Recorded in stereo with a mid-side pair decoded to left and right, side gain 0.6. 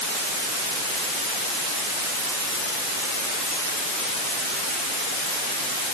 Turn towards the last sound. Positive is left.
No sound to turn to.